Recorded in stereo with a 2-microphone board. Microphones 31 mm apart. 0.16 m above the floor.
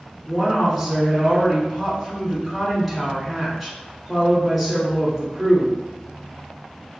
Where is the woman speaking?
Centre (ahead or behind), 1.3 m.